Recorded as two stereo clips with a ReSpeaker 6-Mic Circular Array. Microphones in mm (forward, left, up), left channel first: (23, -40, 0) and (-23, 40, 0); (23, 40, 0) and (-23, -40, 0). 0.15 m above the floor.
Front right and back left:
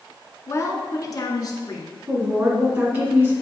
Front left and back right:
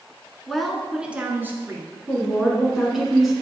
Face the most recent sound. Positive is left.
turn(degrees=160)